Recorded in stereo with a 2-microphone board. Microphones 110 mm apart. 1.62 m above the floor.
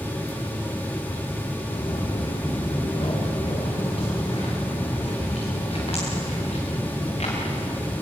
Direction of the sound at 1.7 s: 45° left (ahead or behind).